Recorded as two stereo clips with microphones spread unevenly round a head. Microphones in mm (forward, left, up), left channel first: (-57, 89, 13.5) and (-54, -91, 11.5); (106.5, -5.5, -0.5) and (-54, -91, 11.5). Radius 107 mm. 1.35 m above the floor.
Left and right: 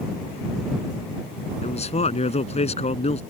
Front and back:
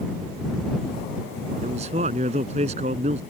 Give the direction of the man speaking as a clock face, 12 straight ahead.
7 o'clock.